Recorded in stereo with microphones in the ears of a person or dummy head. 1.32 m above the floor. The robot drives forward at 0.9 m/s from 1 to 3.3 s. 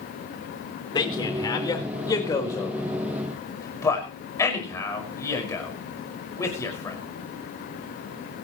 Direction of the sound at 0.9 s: 25° left (ahead or behind).